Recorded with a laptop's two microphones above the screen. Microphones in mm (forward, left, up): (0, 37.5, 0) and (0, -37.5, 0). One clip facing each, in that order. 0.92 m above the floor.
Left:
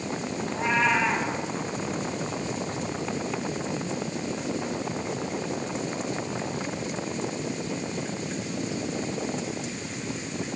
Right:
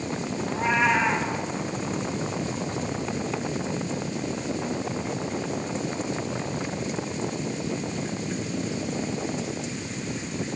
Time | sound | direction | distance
0.5 | a cat meowing | 10° right (ahead or behind) | 3 m